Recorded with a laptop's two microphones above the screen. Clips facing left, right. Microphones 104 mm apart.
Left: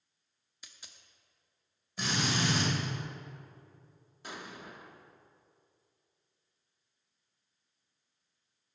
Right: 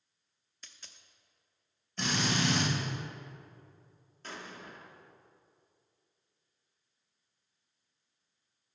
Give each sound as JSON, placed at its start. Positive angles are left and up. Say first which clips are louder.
{"t": 0.6, "sound": "a dropped coin", "louder": "even", "side_deg": 10, "distance_m": 0.6}
{"t": 2.0, "sound": "a drill", "louder": "right 1 dB", "side_deg": 10, "distance_m": 2.5}
{"t": 4.2, "sound": "an explosion", "louder": "even", "side_deg": 10, "distance_m": 0.6}